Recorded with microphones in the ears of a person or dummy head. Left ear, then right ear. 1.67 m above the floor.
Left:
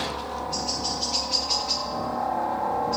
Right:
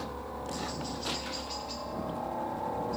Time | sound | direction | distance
0.0 | a helicopter | 40° left (ahead or behind) | ?